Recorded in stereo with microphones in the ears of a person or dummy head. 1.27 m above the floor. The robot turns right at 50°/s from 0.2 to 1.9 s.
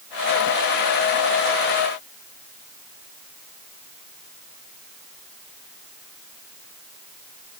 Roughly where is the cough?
No cough in this recording.